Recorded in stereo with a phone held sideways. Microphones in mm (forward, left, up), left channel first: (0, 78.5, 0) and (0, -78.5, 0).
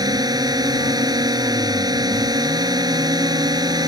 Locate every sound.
0.0 s a drone: 25° right (ahead or behind)